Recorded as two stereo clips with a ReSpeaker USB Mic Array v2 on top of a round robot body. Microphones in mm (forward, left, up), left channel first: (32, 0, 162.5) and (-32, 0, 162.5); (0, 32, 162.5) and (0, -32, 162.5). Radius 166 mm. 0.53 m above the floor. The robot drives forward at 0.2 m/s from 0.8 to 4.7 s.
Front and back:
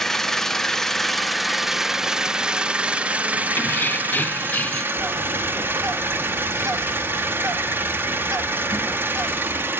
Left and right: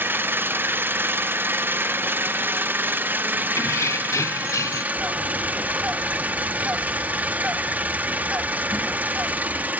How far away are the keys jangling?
About 1.5 m.